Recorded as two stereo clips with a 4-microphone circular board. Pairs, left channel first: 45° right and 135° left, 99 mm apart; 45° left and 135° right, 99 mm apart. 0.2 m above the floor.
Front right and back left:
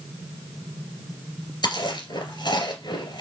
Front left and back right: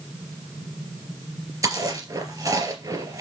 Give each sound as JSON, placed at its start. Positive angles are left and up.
{"t": 1.6, "sound": "chewing", "azimuth_deg": -80, "distance_m": 2.5}